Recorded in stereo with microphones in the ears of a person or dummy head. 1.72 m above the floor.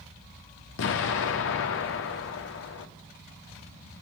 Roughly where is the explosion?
Left.